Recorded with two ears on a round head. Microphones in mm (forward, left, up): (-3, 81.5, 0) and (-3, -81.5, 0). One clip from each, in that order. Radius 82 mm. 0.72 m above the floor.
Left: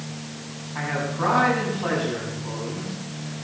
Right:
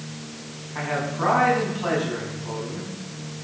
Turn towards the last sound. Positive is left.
turn(degrees=-5)  # may be behind; listen again after turning